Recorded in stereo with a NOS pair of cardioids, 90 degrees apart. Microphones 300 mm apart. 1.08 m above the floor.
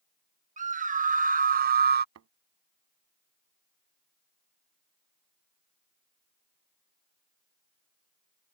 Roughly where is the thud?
Ahead right.